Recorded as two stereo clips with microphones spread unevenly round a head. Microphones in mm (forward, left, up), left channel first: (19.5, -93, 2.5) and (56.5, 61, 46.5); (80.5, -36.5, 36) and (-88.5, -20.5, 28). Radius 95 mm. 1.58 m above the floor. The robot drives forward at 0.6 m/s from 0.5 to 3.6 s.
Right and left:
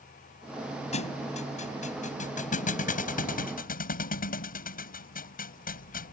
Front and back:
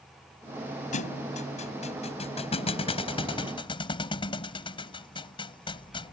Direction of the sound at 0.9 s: 50° right.